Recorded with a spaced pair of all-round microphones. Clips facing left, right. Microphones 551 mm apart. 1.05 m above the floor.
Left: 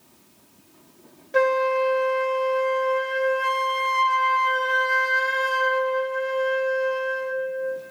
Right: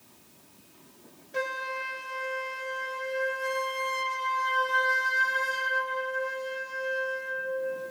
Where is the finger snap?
I don't hear a finger snap.